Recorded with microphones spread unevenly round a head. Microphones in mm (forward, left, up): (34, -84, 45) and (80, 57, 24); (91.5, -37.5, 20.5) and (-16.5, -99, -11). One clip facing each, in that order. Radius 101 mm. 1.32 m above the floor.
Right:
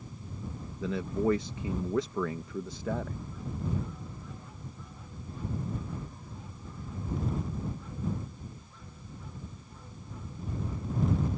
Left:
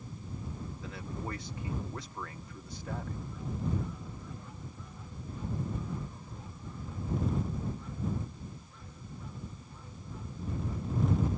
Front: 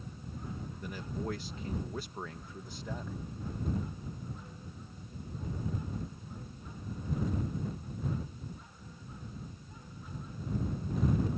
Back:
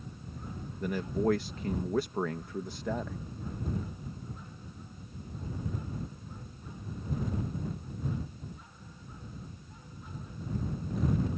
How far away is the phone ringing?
No phone ringing in this recording.